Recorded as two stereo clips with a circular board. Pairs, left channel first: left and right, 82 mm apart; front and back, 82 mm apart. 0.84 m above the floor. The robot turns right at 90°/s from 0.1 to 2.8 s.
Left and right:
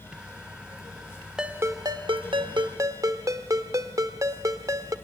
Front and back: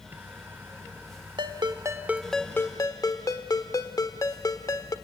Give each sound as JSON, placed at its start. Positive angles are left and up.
{"t": 1.4, "sound": "a ringtone", "azimuth_deg": -170, "distance_m": 1.3}